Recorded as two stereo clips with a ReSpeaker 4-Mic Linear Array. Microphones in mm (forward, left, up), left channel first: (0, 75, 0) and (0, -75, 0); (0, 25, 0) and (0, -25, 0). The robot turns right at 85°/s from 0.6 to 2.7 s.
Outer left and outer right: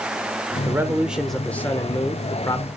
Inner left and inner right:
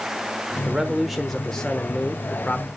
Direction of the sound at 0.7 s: 20° right (ahead or behind).